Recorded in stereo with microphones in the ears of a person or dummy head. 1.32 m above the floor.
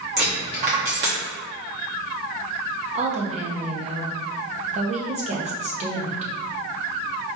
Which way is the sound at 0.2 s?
40° right (ahead or behind).